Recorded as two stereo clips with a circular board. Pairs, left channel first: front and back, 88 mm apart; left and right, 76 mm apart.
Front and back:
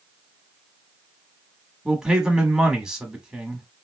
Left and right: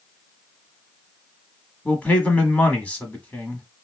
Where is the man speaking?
115° left, 1.0 m.